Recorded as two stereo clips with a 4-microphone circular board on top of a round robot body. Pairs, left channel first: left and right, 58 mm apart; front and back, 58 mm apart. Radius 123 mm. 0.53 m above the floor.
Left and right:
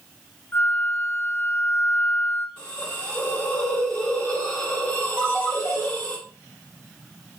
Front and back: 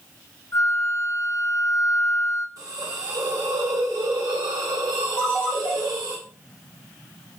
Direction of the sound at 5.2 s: 30° right.